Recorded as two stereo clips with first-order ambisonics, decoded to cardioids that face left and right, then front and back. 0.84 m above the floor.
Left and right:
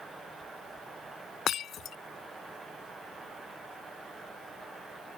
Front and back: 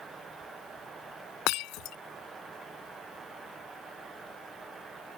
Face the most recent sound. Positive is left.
turn(degrees=30)